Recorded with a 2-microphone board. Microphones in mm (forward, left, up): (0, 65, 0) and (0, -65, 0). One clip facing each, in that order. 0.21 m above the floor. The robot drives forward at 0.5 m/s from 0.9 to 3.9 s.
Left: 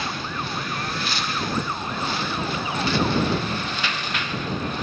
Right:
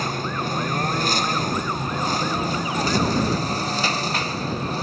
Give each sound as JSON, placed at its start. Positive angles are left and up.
{"t": 0.0, "sound": "a lawn mower", "side_deg": -40}